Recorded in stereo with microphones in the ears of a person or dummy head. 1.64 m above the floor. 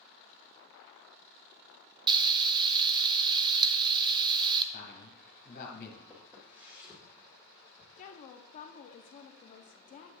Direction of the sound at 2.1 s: 25° right (ahead or behind).